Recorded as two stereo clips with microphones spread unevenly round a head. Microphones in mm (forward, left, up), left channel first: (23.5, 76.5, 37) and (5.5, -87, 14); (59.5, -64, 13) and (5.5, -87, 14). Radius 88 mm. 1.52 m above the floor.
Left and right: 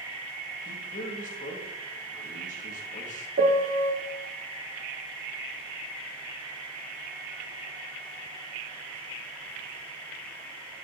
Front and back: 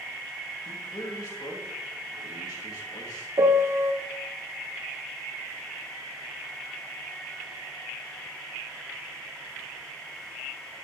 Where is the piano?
135° right, 0.7 m.